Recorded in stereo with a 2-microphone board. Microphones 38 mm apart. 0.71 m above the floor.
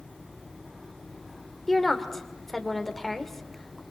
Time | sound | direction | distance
1.7 | a woman speaking | 10° left (ahead or behind) | 2.5 m